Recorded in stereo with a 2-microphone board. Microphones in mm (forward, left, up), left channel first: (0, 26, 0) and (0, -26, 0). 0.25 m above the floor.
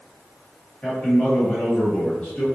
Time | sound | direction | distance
0.8 | a man speaking | 15° left (ahead or behind) | 1.2 m